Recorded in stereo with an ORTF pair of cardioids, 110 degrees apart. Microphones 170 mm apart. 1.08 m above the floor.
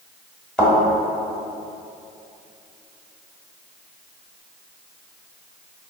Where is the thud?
5° left, 1.2 m.